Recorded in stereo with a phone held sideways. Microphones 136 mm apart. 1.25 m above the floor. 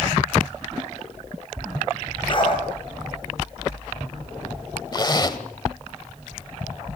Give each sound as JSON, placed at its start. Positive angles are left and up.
{"t": 2.3, "sound": "a dog barking", "side_deg": 40, "distance_m": 6.5}
{"t": 4.9, "sound": "a zipper", "side_deg": 30, "distance_m": 1.2}